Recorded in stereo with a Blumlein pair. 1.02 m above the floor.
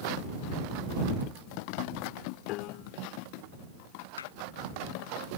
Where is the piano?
40° left.